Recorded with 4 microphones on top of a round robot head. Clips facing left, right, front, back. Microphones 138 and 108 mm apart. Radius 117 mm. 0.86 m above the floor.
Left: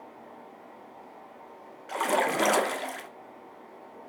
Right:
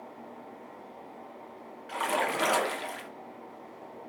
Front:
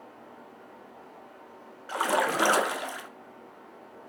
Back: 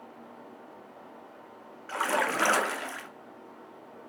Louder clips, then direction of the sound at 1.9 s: Left 4 dB, front 2 dB; 70° left.